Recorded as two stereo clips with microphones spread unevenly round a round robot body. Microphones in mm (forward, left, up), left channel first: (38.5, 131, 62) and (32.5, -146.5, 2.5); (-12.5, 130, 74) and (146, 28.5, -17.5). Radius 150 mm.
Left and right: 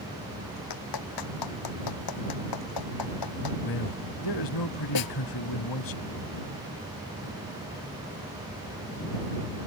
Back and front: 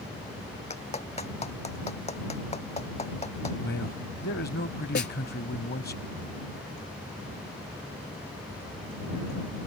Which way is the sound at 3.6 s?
100° left.